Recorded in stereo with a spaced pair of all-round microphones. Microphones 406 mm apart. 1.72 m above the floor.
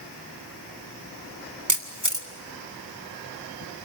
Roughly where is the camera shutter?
Right.